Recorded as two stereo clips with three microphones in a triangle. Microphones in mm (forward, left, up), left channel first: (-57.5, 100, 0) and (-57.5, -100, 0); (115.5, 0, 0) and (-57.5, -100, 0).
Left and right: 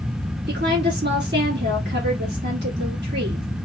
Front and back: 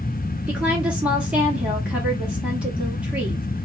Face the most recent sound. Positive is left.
turn(degrees=-65)